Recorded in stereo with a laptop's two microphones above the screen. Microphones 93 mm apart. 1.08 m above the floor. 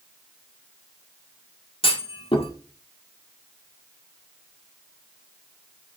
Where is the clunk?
80° left, 1.7 m.